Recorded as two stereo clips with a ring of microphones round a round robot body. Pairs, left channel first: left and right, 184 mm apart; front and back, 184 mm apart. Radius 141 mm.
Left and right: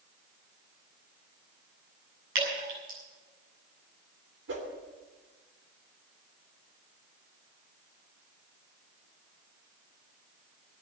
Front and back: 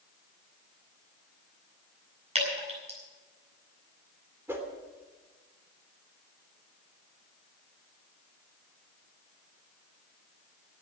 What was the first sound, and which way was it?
Dripping, 125° right.